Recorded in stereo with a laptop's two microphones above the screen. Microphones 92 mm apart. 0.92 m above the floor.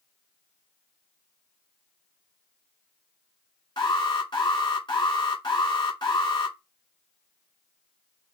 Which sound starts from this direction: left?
An alarm, at 3.8 s.